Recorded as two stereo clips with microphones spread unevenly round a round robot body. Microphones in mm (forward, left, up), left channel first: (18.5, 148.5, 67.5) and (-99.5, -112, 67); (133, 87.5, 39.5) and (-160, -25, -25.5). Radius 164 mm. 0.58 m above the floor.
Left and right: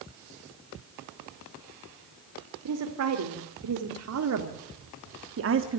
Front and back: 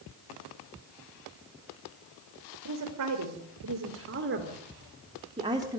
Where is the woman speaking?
135° right, 2.5 m; by 5.8 s 90° right, 1.4 m.